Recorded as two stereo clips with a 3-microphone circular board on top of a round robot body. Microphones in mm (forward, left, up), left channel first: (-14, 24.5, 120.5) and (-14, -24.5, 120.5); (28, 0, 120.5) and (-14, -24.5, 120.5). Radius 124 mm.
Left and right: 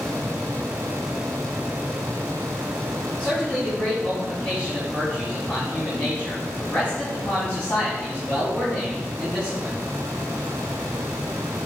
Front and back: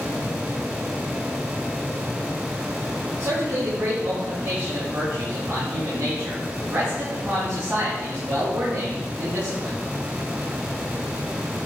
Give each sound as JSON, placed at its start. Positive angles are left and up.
{"t": 3.2, "sound": "a man speaking", "azimuth_deg": 155, "distance_m": 3.0}